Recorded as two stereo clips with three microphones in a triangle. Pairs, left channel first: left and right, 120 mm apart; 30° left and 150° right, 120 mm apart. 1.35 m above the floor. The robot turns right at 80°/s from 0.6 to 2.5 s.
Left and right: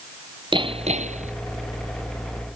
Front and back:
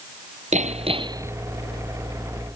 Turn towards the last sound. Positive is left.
turn(degrees=15)